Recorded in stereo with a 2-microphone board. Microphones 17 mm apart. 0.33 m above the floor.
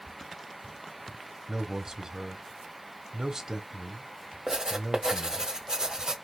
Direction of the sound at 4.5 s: 45° right (ahead or behind).